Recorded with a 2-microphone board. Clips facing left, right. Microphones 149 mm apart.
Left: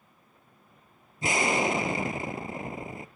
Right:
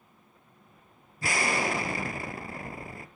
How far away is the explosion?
About 1.0 m.